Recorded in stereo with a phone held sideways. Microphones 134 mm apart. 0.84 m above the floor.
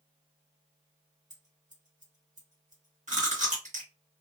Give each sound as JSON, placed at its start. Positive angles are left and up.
{"t": 1.3, "sound": "scissors", "side_deg": -65, "distance_m": 1.6}
{"t": 3.1, "sound": "chewing", "side_deg": -65, "distance_m": 1.7}